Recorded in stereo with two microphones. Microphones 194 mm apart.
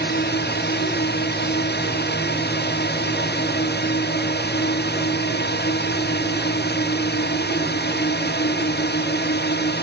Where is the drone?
60° left (ahead or behind).